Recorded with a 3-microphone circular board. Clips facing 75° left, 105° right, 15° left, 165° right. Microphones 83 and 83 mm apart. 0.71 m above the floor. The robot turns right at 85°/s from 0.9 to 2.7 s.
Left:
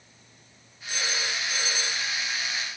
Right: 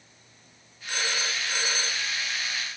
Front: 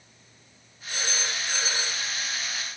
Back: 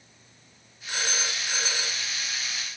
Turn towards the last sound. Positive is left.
turn(degrees=10)